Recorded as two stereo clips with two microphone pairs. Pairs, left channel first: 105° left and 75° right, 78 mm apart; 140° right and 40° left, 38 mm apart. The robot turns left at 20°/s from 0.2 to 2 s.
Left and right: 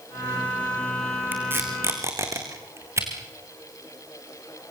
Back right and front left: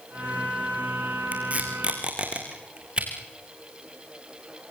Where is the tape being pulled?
5° right, 4.5 m; by 3.1 s 20° right, 4.5 m.